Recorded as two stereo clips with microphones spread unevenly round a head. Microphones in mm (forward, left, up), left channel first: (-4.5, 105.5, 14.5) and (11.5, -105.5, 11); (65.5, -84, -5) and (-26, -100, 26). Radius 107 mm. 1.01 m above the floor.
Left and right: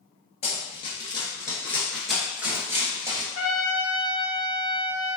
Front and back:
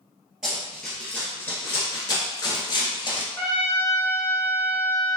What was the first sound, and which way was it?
Running footsteps, 135° left.